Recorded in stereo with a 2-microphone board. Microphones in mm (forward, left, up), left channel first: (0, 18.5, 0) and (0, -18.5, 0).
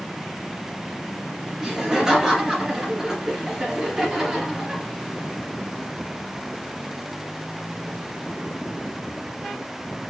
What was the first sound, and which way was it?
Laughter, 15° right (ahead or behind).